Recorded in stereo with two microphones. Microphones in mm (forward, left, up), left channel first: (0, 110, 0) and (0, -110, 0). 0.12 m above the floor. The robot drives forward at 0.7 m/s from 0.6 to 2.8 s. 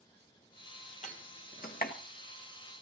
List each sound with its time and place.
1.0 s a door slam: 35° left (ahead or behind), 1.8 m; by 1.9 s 50° left (ahead or behind), 1.5 m